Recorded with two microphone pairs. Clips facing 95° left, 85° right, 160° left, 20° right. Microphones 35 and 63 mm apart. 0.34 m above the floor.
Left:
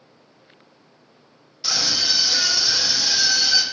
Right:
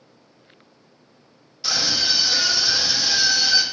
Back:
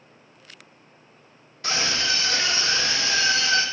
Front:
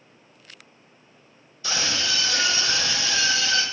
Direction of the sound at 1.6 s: Straight behind.